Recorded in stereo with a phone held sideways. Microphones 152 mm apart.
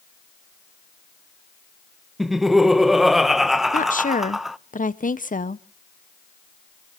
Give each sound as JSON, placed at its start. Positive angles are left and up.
{"t": 2.2, "sound": "laughter", "side_deg": 0, "distance_m": 0.7}
{"t": 3.7, "sound": "a woman speaking", "side_deg": 60, "distance_m": 0.7}